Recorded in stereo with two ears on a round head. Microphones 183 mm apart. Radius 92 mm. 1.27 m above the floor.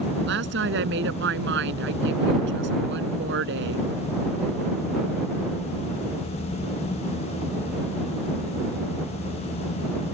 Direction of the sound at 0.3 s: 65° right (ahead or behind).